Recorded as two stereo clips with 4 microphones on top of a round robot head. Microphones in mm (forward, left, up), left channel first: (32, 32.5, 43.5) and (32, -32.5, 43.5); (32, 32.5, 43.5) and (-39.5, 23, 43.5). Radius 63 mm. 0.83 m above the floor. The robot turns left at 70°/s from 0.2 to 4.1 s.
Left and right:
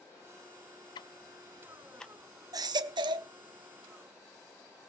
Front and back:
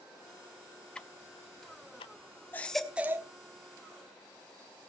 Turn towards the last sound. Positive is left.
turn(degrees=-170)